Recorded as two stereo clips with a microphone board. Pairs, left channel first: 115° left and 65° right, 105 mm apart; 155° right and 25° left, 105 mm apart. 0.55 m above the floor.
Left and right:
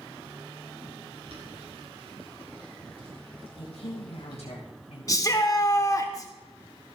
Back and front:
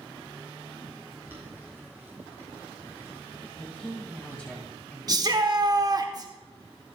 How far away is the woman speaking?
About 2.5 m.